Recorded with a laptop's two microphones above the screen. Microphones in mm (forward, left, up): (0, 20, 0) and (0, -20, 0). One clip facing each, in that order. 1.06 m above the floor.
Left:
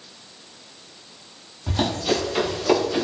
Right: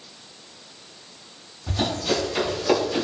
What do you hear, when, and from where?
1.7 s running footsteps: 35° left (ahead or behind), 1.2 m; by 3.0 s 5° right (ahead or behind), 1.0 m